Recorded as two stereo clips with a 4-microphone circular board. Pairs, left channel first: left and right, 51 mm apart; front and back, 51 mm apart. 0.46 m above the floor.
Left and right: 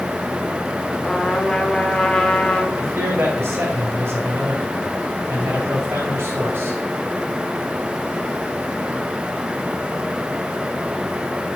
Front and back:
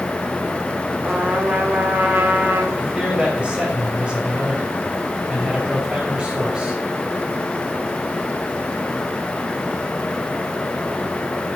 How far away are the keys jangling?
I don't hear keys jangling.